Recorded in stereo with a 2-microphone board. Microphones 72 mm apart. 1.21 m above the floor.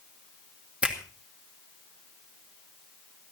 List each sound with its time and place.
0.8 s a finger snap: 20° right (ahead or behind), 2 m